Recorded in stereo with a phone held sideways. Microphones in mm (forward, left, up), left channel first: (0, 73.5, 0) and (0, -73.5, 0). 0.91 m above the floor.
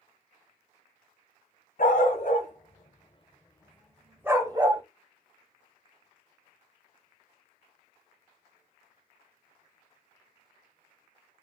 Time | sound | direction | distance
1.8 | a dog barking | 65° left (ahead or behind) | 1.4 m